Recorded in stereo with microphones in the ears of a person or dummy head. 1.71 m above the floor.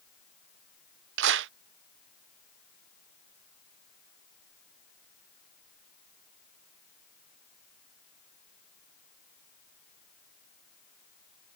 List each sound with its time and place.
1.2 s a clap: 65° right (ahead or behind)